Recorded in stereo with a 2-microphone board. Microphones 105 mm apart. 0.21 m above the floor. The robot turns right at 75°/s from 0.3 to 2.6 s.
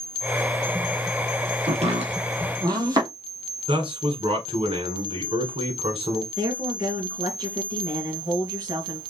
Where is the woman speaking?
40° right (ahead or behind), 2.5 m.